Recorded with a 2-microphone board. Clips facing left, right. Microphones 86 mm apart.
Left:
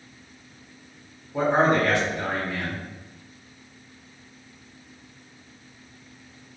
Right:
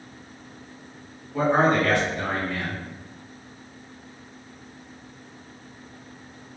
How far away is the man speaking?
About 1.5 m.